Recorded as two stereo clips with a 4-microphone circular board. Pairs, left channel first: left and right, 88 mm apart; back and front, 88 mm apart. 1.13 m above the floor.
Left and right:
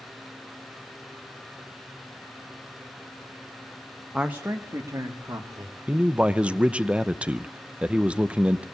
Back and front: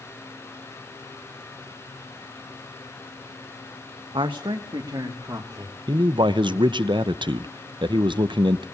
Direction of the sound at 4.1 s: 10° right.